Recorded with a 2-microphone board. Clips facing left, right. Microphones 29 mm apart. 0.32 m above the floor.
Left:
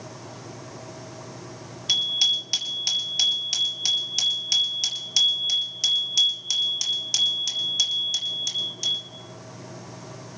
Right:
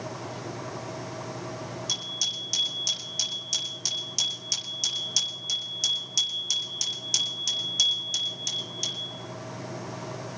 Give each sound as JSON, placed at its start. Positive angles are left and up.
{"t": 1.9, "sound": "a bicycle bell", "side_deg": 55, "distance_m": 5.0}